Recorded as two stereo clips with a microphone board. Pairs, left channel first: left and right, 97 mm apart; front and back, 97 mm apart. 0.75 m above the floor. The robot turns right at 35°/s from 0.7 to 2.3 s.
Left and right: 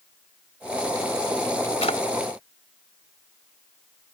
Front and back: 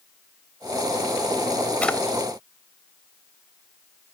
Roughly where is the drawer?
Left.